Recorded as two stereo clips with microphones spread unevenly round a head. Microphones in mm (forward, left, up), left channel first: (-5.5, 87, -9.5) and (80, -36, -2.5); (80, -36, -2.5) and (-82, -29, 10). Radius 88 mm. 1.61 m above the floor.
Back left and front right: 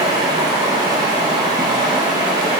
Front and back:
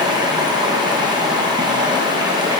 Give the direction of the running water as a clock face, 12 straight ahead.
4 o'clock.